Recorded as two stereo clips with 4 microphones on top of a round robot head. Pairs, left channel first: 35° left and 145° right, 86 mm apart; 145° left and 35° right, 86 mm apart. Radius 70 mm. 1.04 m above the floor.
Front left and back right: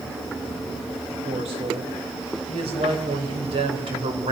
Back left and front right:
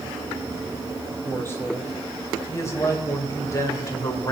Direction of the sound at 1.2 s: 155° right.